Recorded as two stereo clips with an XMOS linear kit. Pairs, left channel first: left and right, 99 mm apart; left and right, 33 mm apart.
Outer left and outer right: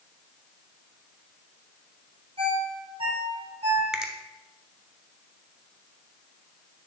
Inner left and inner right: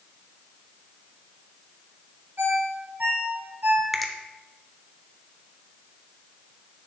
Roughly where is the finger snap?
Centre.